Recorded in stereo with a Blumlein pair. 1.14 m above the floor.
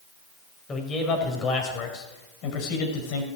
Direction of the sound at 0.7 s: 20° left.